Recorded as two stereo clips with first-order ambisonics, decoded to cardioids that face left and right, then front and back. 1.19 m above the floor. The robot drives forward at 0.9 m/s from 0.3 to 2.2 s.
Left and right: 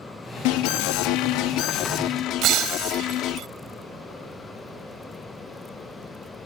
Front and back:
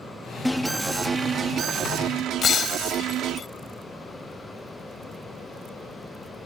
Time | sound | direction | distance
0.5 | an alarm | 85° left | ?
2.4 | breaking glass | 60° right | ?